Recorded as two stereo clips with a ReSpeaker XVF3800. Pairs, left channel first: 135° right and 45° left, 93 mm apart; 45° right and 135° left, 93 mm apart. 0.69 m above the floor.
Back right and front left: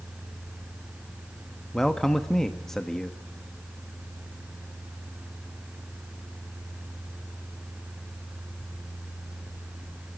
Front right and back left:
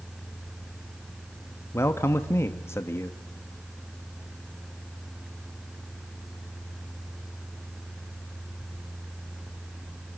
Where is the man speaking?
50° right, 1.0 m.